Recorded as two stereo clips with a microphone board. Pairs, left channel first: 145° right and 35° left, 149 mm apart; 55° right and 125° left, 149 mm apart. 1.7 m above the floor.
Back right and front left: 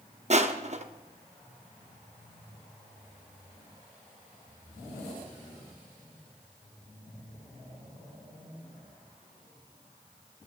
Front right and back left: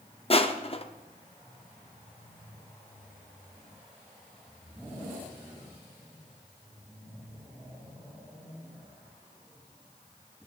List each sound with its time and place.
0.3 s crushing: 5° right, 0.8 m